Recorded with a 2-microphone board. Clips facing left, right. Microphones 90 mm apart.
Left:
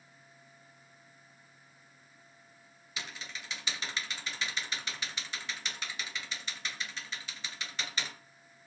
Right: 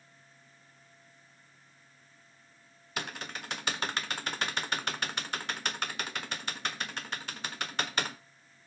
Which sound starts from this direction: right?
Typing on a keyboard, at 3.0 s.